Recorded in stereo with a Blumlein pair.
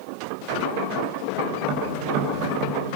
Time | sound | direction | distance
1.6 | tapping | 40° right | 4 m